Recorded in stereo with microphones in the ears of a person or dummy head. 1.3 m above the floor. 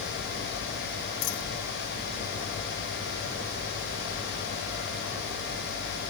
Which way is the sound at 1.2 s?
80° left.